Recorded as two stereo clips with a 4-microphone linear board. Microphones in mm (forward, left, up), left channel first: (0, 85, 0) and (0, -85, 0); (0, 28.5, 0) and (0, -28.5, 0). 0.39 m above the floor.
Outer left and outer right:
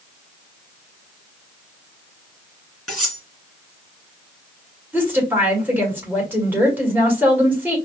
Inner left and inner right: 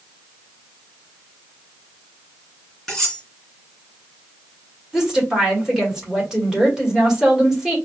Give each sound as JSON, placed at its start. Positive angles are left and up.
{"t": 2.9, "sound": "cutlery clinking", "side_deg": 5, "distance_m": 3.0}
{"t": 4.9, "sound": "a woman speaking", "side_deg": -10, "distance_m": 1.5}